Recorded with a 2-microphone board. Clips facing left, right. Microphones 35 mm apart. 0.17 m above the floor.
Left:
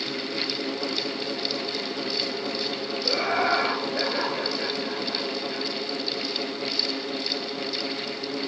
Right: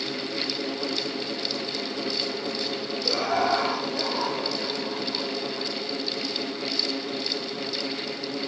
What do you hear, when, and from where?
3.0 s laughter: 25° left (ahead or behind), 3 m; by 5.7 s 65° left (ahead or behind), 3.5 m